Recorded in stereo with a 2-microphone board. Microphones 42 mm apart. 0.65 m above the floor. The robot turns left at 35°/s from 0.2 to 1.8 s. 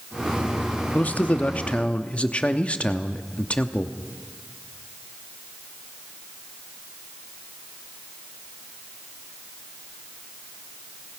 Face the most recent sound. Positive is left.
turn(degrees=50)